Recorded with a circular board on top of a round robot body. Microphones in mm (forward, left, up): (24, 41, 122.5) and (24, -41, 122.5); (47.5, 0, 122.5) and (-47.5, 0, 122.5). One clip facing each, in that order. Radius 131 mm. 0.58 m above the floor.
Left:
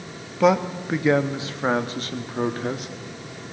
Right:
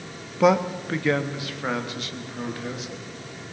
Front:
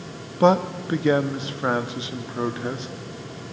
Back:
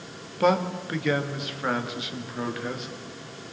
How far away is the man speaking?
About 1.1 m.